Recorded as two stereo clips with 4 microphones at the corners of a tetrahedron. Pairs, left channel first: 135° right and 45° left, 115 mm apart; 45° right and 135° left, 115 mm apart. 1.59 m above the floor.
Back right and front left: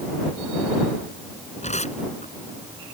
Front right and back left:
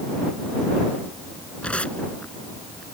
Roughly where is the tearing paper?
Behind right.